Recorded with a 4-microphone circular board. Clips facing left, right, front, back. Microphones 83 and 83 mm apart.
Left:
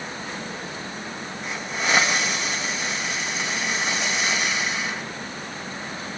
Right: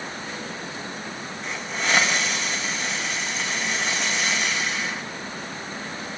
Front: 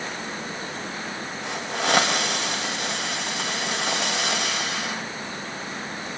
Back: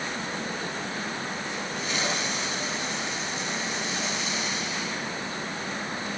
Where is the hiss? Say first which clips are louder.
Left 1 dB, front 6 dB; 5° left, 4 m.